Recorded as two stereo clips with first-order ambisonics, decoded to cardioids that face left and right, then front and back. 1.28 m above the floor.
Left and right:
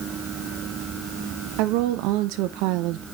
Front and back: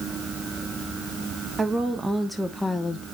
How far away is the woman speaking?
About 1.3 m.